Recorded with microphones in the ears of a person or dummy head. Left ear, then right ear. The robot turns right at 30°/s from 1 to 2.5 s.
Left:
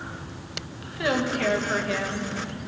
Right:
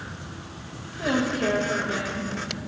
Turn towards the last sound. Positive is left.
turn(degrees=150)